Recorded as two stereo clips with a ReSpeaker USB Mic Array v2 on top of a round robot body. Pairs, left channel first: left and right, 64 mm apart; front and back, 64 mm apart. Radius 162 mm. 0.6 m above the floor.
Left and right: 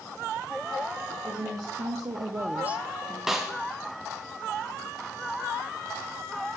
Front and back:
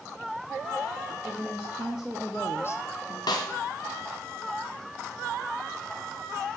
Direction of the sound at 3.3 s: 5° right.